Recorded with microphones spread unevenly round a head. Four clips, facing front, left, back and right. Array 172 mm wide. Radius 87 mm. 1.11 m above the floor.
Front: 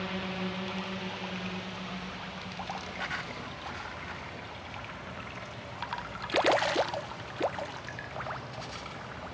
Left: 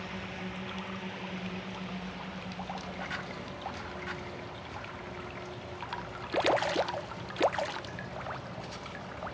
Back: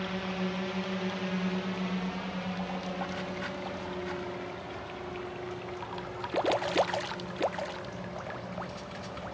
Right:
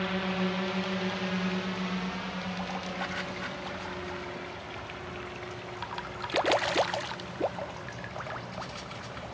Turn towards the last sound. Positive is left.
turn(degrees=180)